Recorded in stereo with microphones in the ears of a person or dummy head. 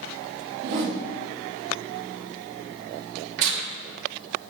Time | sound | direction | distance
0.6 | a whoosh | 60° right (ahead or behind) | 0.9 m
3.4 | tearing paper | 70° right (ahead or behind) | 1.1 m